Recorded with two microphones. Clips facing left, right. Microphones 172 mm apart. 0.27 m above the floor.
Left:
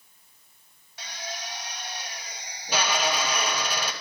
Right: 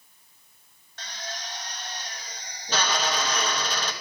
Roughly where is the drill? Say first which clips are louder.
Left 1 dB; centre.